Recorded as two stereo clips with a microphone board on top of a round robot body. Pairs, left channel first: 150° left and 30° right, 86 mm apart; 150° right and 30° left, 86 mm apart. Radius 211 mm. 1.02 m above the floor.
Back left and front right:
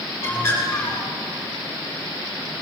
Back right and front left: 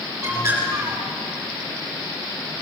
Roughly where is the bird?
Left.